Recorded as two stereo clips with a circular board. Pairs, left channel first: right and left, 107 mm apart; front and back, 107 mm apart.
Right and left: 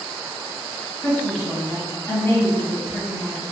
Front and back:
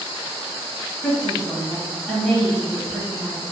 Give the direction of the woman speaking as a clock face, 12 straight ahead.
3 o'clock.